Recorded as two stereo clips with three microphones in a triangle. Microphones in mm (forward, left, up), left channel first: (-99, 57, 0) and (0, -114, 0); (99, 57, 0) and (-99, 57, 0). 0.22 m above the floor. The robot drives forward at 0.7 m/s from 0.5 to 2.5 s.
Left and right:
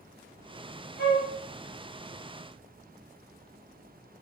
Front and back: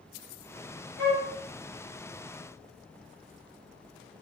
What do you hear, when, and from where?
1.0 s a flute: 160° left, 3 m